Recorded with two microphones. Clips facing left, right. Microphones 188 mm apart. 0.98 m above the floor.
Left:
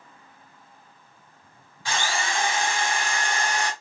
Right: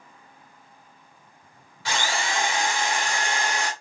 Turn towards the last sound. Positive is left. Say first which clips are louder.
# even
turn(degrees=-80)